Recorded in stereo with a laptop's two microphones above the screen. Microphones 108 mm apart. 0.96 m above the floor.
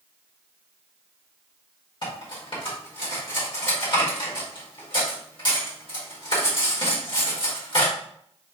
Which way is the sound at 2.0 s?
50° left (ahead or behind).